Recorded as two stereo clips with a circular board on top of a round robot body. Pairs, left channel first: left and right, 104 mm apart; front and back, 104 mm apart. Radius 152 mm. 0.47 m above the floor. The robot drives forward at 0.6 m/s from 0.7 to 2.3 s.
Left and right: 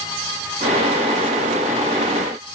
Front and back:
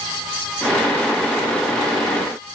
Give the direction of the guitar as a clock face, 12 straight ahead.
I don't hear a guitar.